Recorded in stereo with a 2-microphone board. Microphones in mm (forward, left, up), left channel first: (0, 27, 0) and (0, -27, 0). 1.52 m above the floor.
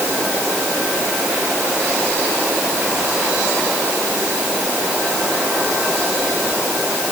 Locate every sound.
Only background noise.